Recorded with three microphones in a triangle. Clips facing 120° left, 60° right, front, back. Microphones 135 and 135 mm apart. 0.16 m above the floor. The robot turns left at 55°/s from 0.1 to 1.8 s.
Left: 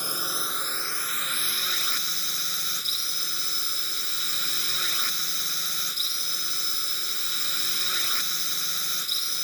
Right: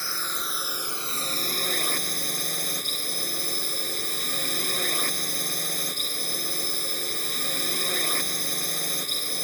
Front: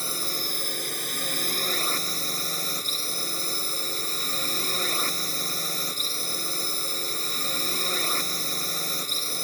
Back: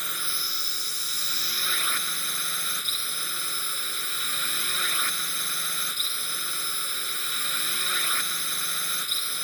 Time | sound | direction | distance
0.0 | a drone | 50° left | ?